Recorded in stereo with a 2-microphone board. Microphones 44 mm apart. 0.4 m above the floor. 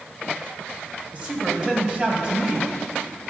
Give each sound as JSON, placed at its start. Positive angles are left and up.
{"t": 1.1, "sound": "a woman speaking", "side_deg": -30, "distance_m": 1.6}